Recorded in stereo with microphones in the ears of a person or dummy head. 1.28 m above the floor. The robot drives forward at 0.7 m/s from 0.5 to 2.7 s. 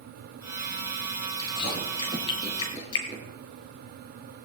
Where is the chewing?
30° left (ahead or behind), 6 m; by 3.2 s 35° left (ahead or behind), 5.5 m.